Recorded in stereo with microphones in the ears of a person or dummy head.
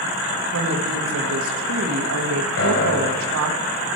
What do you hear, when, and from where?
0.5 s a woman speaking: 75° right (ahead or behind), 1.8 m
2.6 s a piano: 70° left (ahead or behind), 3.5 m